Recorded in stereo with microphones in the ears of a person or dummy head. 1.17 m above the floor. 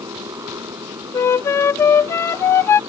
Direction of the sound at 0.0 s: 15° right (ahead or behind).